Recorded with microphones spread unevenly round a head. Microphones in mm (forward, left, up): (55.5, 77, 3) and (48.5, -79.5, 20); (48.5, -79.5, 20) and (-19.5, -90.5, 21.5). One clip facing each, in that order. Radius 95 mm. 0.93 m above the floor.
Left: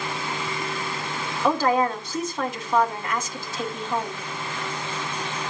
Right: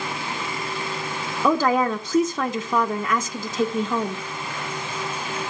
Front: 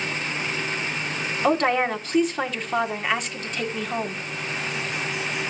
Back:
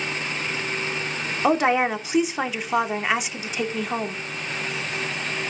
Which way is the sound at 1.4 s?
90° right.